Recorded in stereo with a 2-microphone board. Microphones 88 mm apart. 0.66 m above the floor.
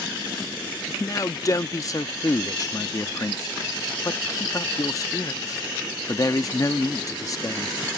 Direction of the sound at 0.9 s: 40° left (ahead or behind).